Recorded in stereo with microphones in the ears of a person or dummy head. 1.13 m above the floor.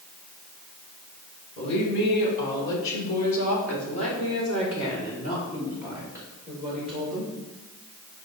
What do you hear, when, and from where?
1.6 s a woman speaking: 55° left (ahead or behind), 4 m; by 7.3 s 45° left (ahead or behind), 4.5 m